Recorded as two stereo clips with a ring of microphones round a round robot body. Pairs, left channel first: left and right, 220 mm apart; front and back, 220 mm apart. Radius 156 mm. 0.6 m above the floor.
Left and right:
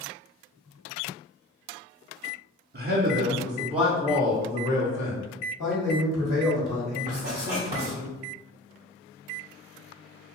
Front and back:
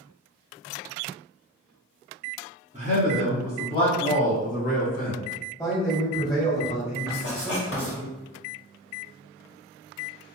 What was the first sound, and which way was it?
A man speaking, 105° right.